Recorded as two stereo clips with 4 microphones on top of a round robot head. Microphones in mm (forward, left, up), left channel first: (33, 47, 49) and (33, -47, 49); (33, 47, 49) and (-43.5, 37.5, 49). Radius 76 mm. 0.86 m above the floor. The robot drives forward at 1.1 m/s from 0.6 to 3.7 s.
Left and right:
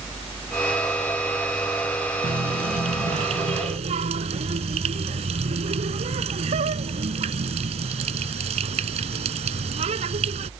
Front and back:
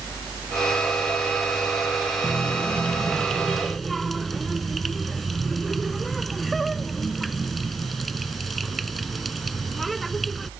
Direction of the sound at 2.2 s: 70° right.